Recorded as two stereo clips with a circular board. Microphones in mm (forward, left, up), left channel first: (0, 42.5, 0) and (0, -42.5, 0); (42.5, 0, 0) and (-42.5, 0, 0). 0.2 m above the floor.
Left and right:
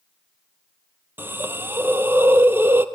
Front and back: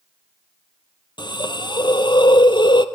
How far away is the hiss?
About 0.9 m.